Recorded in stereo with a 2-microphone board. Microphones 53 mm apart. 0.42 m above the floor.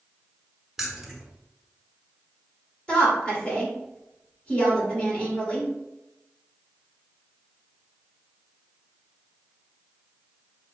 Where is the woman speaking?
20° left (ahead or behind), 1.5 m.